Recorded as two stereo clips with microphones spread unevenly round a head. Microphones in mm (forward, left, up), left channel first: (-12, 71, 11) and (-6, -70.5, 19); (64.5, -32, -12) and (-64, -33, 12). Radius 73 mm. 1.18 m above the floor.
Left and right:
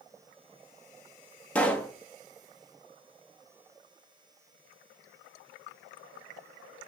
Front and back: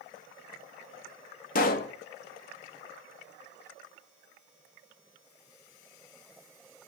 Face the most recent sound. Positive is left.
turn(degrees=10)